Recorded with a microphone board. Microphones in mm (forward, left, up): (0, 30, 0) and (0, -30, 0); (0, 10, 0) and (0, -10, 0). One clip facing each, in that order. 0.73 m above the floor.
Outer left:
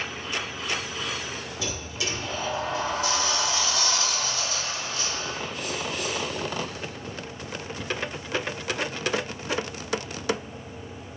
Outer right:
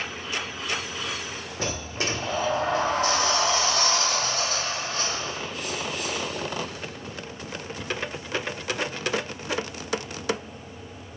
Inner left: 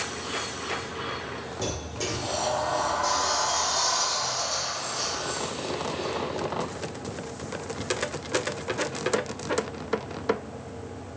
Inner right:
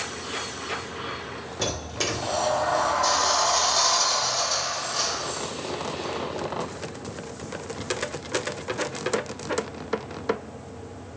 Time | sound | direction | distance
1.6 | a sliding door | 50° right (ahead or behind) | 0.6 m